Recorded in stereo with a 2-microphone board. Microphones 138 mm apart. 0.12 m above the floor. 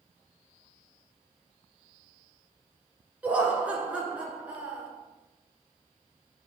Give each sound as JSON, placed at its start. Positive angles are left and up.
{"t": 3.2, "sound": "laughter", "side_deg": -10, "distance_m": 1.4}